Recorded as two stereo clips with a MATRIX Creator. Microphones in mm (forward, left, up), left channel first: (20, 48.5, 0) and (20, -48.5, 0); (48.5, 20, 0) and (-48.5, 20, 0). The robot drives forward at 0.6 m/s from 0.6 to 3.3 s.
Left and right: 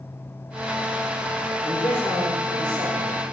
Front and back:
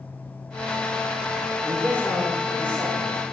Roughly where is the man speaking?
Left.